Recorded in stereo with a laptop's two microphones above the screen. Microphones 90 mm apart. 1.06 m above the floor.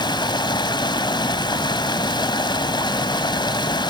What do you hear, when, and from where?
0.0 s running water: 55° left (ahead or behind), 1.4 m